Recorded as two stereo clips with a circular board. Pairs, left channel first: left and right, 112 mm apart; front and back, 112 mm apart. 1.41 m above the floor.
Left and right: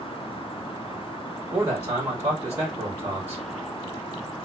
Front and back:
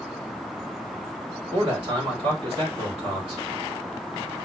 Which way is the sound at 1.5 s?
155° right.